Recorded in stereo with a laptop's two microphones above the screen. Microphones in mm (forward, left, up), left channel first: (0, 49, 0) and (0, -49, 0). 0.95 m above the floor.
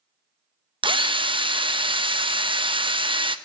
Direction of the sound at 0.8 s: 65° right (ahead or behind).